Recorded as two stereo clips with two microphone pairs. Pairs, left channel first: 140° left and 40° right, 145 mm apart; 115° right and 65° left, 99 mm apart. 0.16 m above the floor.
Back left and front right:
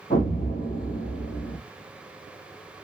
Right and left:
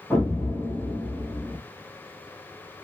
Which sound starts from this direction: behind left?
An explosion, at 0.1 s.